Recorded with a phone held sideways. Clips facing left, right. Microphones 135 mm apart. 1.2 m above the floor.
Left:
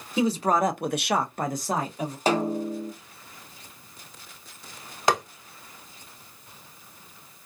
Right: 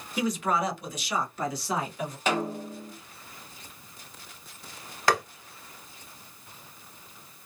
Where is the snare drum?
35° left (ahead or behind), 0.8 m.